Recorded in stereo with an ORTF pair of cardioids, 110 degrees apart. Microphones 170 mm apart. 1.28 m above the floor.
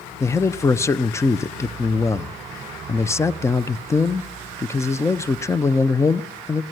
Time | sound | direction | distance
0.2 | a man speaking | 15° left | 0.7 m